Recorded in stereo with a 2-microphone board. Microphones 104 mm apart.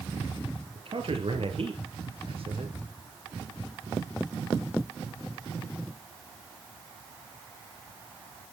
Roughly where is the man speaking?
Right.